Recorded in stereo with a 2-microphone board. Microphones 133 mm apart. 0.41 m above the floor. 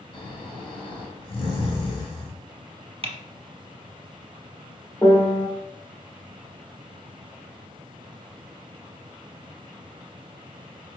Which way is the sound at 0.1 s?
40° left (ahead or behind).